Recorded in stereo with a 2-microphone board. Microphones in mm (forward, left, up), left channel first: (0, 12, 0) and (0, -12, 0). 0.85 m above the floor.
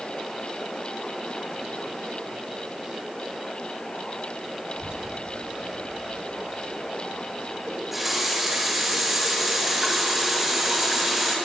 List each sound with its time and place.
4.8 s a child speaking: 55° right (ahead or behind), 1.0 m; by 7.6 s 80° right, 3.5 m
7.7 s a running tap: 10° right (ahead or behind), 3.5 m